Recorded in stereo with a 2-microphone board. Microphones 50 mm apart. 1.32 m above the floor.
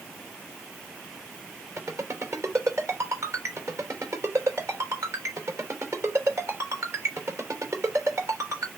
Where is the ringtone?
60° right (ahead or behind), 3 m.